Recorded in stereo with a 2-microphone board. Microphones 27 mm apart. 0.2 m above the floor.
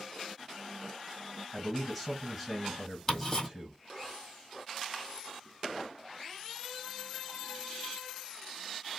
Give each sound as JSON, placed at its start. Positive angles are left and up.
{"t": 1.5, "sound": "a man speaking", "side_deg": -10, "distance_m": 1.5}
{"t": 3.1, "sound": "ticking", "side_deg": 20, "distance_m": 1.6}